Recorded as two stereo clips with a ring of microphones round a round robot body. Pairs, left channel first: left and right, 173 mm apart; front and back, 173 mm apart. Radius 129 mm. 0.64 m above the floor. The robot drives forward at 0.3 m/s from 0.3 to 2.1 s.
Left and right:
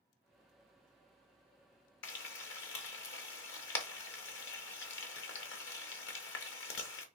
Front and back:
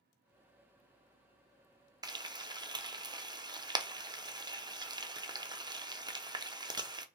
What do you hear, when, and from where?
2.0 s frying: 110° left, 0.6 m